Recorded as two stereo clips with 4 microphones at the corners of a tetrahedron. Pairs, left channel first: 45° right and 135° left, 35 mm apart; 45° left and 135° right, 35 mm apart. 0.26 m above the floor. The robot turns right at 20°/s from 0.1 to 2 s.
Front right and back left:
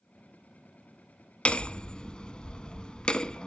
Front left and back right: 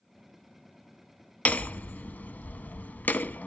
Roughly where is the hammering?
Ahead.